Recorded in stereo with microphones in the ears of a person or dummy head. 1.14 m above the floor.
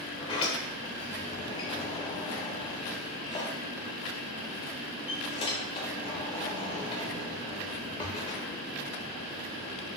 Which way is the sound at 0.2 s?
25° left (ahead or behind).